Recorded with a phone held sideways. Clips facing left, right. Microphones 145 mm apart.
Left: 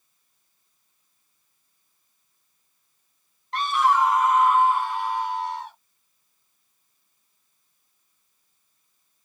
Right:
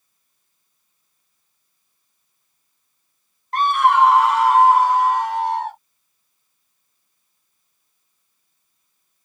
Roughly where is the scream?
Right.